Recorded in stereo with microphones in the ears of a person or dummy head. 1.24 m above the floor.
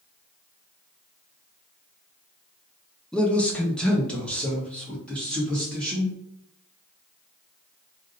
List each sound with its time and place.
3.1 s a man speaking: centre (ahead or behind), 0.5 m